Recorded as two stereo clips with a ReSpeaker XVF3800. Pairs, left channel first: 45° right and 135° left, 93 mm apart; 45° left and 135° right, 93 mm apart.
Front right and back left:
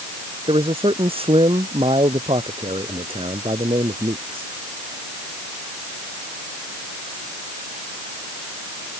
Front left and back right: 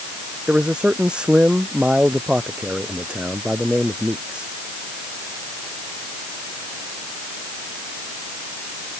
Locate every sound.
0.5 s a man speaking: 145° left